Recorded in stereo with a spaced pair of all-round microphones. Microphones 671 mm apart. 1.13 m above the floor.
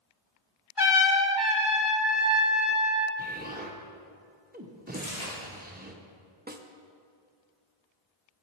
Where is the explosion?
15° right (ahead or behind), 0.7 m.